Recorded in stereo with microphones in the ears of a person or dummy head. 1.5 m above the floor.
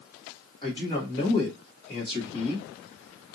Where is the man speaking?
20° left (ahead or behind), 1.2 m.